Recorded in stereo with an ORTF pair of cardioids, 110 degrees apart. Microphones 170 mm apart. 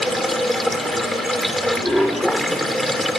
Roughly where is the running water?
Ahead.